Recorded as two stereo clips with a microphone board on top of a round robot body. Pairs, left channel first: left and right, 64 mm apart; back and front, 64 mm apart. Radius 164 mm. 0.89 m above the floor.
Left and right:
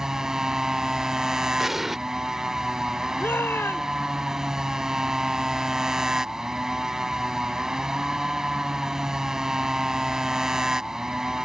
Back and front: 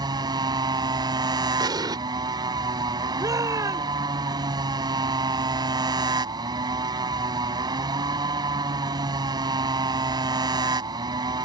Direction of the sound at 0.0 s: 10° right.